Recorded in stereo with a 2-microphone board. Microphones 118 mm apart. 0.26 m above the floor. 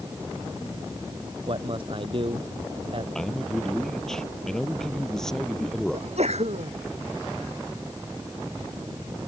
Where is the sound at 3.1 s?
5° left (ahead or behind).